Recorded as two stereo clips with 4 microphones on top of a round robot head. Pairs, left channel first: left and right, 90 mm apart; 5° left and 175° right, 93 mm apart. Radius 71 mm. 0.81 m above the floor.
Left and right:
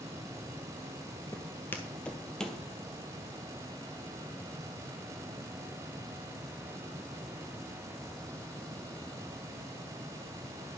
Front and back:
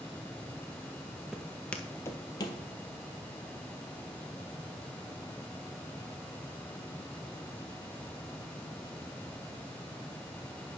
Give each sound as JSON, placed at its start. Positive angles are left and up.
{"t": 1.3, "sound": "footsteps", "azimuth_deg": 115, "distance_m": 0.8}